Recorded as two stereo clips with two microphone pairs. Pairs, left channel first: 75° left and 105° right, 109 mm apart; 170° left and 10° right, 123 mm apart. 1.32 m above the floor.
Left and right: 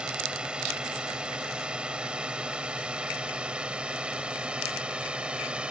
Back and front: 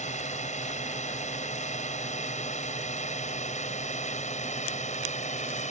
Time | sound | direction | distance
0.0 | a drone | 175° left | ?